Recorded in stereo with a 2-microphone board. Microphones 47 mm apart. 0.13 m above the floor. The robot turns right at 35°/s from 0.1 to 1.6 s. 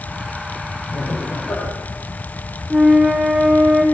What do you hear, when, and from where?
0.9 s laughter: 75° left (ahead or behind), 8.5 m; by 1.7 s 55° left (ahead or behind), 8.5 m
2.7 s a flute: 15° right (ahead or behind), 6 m